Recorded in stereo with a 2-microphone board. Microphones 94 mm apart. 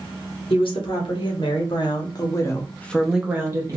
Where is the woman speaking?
70° left (ahead or behind), 1.6 m; by 3.8 s 40° right (ahead or behind), 0.7 m.